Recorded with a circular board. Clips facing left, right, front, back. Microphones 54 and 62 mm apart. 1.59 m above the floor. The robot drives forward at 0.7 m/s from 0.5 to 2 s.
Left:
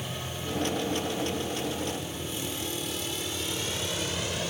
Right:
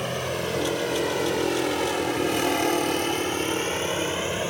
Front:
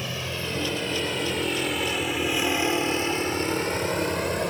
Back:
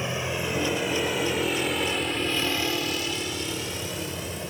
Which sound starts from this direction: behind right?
A vehicle, at 0.0 s.